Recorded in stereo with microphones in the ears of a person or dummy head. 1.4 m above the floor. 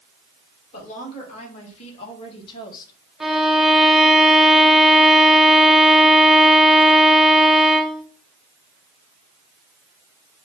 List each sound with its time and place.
0.7 s a woman speaking: 40° left (ahead or behind), 2 m; by 2.9 s 20° left (ahead or behind), 0.9 m
3.2 s a violin: 5° right (ahead or behind), 0.7 m